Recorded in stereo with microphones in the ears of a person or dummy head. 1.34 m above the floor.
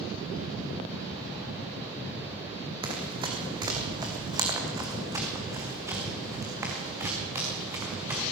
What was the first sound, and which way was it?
Running footsteps, 25° right (ahead or behind).